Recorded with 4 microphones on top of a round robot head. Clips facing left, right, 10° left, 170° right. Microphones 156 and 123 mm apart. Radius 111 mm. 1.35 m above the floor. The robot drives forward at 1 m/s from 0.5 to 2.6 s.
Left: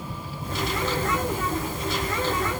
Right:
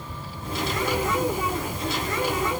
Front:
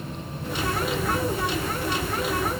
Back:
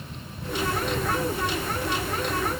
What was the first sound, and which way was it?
Only background noise.